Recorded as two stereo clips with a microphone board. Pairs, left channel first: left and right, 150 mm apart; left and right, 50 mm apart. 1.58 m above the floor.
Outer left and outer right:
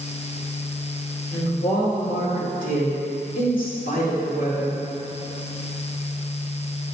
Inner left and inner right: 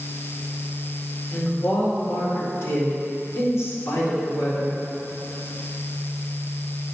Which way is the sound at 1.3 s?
65° left (ahead or behind).